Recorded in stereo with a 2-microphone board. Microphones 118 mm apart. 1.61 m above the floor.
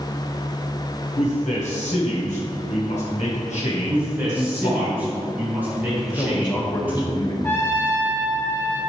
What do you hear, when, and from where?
1.2 s a man speaking: 85° left, 1.4 m
3.9 s a man speaking: 15° right (ahead or behind), 1.9 m
6.0 s a man speaking: 35° left (ahead or behind), 1.6 m
7.4 s a trumpet: 20° left (ahead or behind), 1.4 m